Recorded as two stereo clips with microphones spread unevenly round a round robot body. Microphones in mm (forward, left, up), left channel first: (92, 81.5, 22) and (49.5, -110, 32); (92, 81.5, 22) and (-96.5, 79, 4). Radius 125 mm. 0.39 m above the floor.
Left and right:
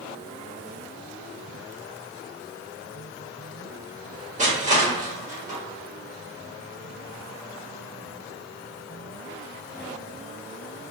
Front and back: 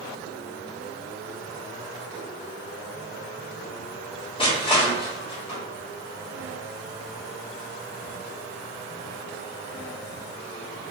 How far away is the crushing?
About 1.6 m.